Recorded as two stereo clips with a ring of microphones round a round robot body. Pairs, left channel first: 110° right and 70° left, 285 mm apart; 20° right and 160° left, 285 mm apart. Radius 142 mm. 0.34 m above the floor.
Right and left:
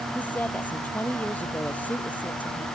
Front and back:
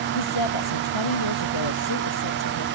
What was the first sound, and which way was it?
A woman speaking, 30° right.